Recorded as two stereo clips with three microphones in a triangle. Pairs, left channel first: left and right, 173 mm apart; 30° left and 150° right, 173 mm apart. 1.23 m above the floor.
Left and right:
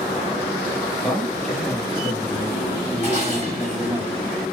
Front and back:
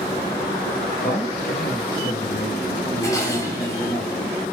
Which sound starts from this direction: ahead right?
Dishes clattering, at 3.0 s.